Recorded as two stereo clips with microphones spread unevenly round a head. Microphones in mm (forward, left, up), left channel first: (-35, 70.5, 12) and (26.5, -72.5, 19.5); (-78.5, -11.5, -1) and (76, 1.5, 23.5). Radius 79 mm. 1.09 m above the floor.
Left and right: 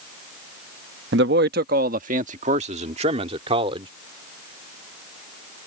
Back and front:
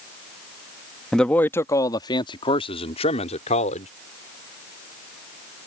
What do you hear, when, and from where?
1.1 s a man speaking: 85° right; by 3.9 s 125° right